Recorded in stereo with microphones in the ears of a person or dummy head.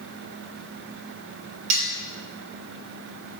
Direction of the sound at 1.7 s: 45° right (ahead or behind).